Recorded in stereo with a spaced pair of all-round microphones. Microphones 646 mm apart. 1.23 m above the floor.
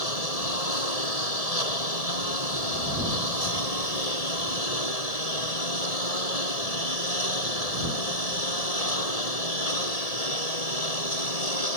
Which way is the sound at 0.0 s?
65° left (ahead or behind).